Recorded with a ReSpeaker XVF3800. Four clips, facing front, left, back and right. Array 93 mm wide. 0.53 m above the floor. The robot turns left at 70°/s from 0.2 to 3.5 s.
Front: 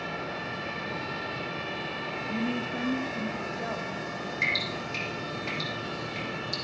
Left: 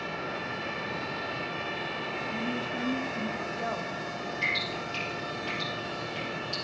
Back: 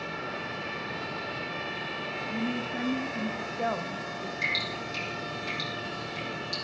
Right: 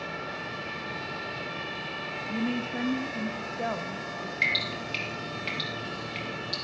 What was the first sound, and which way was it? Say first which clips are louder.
A woman speaking: right 5 dB, front 1 dB; 65° right.